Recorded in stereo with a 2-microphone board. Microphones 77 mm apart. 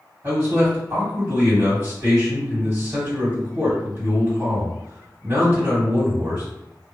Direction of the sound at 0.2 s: 35° right (ahead or behind).